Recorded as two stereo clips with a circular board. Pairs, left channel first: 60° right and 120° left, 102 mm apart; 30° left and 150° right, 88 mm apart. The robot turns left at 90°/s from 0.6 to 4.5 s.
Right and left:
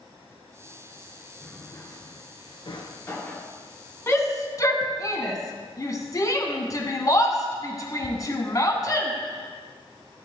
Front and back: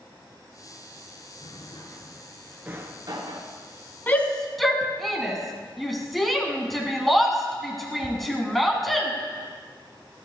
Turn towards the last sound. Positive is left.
turn(degrees=-60)